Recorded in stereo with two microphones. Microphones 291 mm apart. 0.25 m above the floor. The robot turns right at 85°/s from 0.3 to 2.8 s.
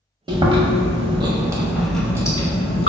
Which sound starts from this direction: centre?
Chewing, at 0.3 s.